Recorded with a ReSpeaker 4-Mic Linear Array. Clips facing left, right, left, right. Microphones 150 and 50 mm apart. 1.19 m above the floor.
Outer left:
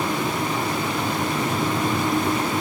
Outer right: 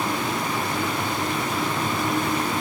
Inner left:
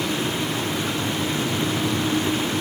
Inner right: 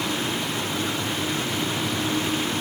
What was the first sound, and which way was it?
Only background noise.